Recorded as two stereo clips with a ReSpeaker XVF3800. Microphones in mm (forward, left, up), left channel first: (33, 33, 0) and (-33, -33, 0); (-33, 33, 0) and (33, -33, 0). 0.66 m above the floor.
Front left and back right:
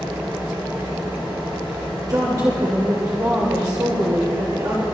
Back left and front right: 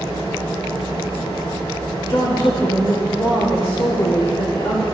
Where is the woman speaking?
175° left, 2.0 m.